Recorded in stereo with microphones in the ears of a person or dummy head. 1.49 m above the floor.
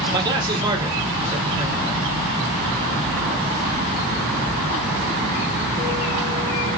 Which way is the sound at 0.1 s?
25° right (ahead or behind).